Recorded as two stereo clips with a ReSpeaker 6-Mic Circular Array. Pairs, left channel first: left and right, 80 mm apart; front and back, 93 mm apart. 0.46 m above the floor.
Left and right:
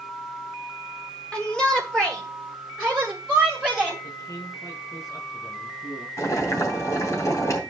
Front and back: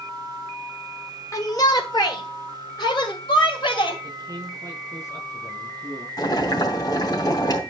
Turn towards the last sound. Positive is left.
turn(degrees=45)